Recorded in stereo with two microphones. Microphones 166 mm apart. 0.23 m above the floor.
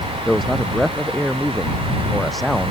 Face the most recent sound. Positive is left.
turn(degrees=0)  # may be behind; listen again after turning